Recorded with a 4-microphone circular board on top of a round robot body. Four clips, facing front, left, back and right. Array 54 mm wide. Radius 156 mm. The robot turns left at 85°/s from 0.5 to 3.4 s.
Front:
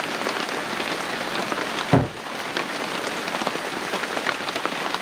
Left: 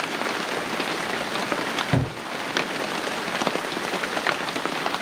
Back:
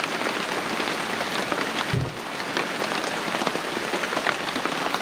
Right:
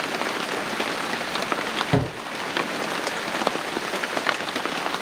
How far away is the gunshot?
About 0.9 m.